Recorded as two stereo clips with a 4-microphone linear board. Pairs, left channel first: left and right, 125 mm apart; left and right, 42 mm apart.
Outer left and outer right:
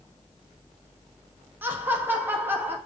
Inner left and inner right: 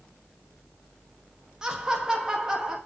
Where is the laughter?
15° right (ahead or behind), 1.0 m.